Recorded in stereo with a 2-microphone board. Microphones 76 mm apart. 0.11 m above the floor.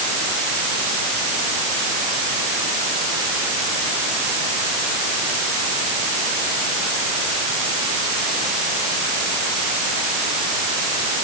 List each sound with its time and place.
Only background noise.